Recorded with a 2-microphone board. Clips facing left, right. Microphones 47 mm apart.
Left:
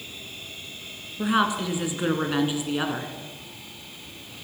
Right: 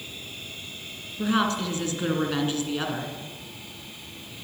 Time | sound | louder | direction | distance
1.2 | a woman speaking | left 1 dB | 15° left (ahead or behind) | 1.9 m